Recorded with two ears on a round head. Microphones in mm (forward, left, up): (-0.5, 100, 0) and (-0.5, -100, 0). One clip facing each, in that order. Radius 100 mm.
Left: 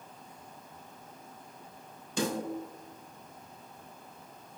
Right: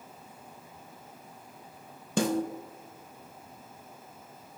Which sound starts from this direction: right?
A snare drum, at 2.2 s.